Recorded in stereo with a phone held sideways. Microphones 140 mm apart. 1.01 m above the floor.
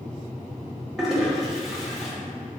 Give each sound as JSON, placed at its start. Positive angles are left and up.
{"t": 1.0, "sound": "a toilet flushing", "side_deg": -5, "distance_m": 0.7}